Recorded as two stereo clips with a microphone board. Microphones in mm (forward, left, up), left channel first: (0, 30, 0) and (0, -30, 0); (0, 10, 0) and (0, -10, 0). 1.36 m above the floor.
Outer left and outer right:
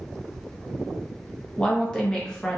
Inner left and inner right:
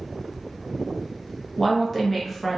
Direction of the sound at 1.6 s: 10° left (ahead or behind).